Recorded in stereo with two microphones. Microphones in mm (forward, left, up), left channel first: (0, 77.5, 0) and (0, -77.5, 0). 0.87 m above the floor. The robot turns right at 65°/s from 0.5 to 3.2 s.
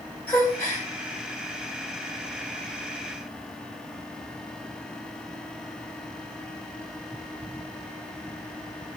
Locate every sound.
0.3 s a gasp: 10° left (ahead or behind), 4.5 m; by 0.9 s 35° left (ahead or behind), 4.5 m